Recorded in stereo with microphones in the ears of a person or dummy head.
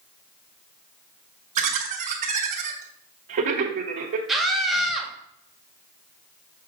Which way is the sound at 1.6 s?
45° right (ahead or behind).